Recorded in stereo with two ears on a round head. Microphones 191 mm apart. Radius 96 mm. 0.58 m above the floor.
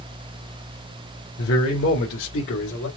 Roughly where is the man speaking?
Left.